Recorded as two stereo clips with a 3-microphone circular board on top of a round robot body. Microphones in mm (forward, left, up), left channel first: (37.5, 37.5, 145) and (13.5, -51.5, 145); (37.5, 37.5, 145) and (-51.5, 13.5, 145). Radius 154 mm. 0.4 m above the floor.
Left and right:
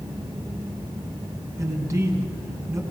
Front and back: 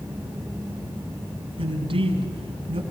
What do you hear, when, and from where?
1.6 s a man speaking: 160° right, 5 m